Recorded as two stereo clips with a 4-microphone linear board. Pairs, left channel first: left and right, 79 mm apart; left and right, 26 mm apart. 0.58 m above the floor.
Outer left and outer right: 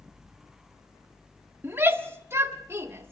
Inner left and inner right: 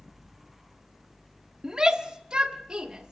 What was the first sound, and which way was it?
A shout, 25° right (ahead or behind).